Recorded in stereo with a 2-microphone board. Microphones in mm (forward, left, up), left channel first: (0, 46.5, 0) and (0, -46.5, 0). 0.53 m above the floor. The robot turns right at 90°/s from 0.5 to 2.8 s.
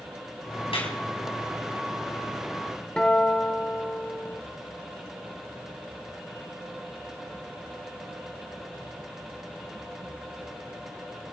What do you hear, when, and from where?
0.7 s a clap: 70° left (ahead or behind), 4 m; by 0.9 s 75° left (ahead or behind), 4 m
3.0 s a guitar: 5° left (ahead or behind), 1.8 m